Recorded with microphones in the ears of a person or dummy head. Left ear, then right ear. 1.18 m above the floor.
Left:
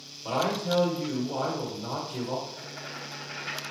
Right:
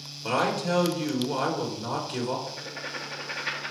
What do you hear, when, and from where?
0.2 s a man speaking: 75° right (ahead or behind), 1.0 m
2.5 s writing: 65° right (ahead or behind), 0.8 m